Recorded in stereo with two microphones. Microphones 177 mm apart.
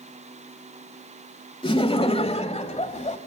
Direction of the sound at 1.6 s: 30° left (ahead or behind).